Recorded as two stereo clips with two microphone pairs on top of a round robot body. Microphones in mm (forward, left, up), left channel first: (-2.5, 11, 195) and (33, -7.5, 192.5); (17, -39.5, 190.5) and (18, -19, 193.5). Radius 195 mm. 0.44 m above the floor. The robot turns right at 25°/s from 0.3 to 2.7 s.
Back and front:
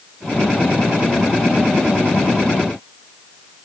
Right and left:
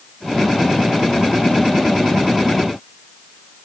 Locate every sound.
Only background noise.